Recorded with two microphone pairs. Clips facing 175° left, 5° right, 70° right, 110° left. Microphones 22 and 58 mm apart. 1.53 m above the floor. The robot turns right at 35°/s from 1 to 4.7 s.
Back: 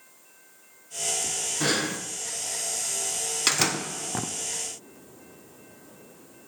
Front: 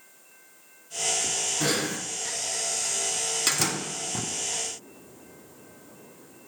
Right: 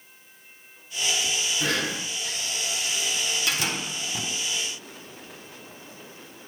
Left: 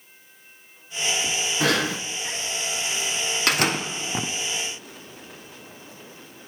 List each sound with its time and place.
1.6 s breathing: 100° left, 0.8 m; by 2.0 s 115° left, 0.8 m
3.5 s a door slam: 110° left, 0.6 m; by 4.3 s 140° left, 0.6 m